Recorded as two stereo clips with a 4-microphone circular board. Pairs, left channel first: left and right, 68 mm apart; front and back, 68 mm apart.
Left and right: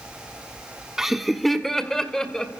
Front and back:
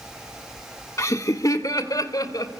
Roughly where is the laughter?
Ahead.